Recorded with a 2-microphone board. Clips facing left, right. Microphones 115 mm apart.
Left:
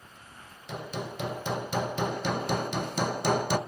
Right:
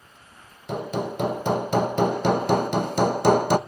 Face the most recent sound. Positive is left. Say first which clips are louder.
# right 9 dB
turn(degrees=-55)  # may be behind; listen again after turning